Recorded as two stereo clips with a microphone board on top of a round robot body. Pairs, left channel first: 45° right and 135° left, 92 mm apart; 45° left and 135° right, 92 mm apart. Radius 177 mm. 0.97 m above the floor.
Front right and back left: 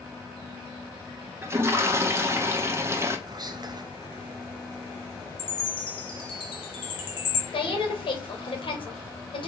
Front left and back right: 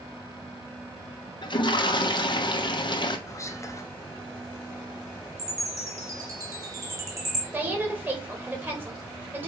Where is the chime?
75° right, 2 m.